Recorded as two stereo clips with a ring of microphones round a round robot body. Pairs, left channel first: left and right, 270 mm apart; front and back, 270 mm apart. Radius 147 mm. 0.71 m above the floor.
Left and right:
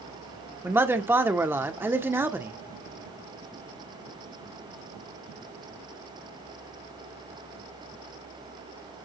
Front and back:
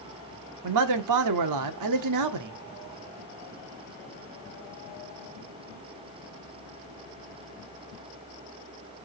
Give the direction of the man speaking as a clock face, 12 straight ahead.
6 o'clock.